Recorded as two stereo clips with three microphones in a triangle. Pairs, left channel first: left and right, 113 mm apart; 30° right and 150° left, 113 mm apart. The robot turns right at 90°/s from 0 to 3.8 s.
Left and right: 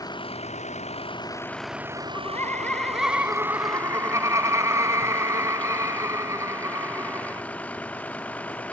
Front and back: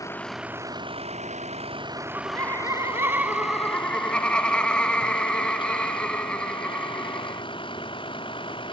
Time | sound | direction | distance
0.0 | a vehicle | 30° left | ?
2.0 | laughter | 95° left | ?